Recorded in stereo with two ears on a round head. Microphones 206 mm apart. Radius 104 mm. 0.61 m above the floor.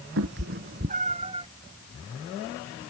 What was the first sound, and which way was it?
A cat meowing, 60° right (ahead or behind).